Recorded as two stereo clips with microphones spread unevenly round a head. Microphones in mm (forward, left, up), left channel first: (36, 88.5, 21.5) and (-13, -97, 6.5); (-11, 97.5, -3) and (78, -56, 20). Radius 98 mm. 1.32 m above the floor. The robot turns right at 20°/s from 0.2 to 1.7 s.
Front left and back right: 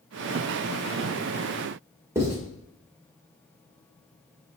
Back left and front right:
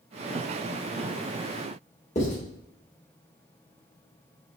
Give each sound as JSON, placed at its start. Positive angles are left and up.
{"t": 2.1, "sound": "writing", "azimuth_deg": 180, "distance_m": 1.7}